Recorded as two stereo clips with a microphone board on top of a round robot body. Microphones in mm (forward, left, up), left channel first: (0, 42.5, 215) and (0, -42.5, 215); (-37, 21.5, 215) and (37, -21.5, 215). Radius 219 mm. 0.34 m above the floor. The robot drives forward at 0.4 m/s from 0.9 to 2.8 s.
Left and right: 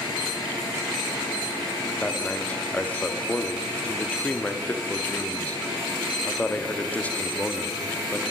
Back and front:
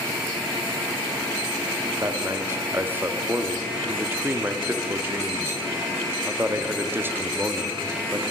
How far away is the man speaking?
About 1.4 m.